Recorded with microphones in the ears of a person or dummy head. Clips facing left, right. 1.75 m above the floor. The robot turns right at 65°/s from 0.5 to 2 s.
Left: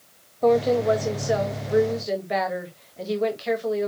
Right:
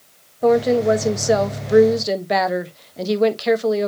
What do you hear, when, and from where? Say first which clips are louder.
0.4 s a woman speaking: right 4 dB; 170° right, 1.4 m; by 3.9 s 75° right, 1.4 m